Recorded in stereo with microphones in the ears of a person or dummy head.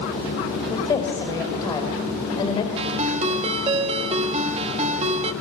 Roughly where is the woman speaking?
Left.